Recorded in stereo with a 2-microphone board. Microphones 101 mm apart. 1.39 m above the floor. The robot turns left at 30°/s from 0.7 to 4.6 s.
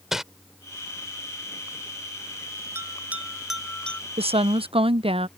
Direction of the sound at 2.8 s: 25° right (ahead or behind).